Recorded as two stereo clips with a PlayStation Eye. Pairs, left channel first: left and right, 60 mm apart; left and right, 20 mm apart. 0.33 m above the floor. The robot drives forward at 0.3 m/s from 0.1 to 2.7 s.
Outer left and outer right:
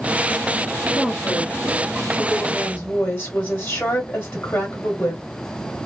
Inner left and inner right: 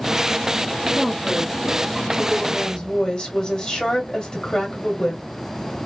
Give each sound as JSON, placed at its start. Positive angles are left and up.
{"t": 0.9, "sound": "a woman speaking", "side_deg": 25, "distance_m": 1.1}